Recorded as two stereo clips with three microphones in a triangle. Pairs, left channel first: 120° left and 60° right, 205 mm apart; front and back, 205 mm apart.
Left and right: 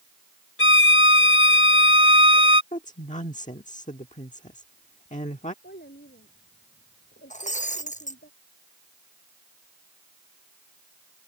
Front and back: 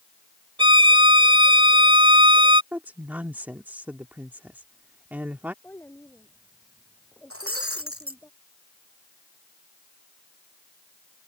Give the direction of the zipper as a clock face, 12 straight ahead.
I don't hear a zipper.